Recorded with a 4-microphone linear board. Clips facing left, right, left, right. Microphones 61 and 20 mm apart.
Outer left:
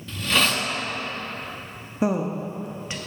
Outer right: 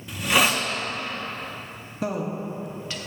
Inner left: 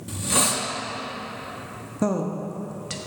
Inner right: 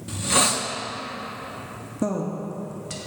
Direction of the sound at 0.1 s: 15° right (ahead or behind).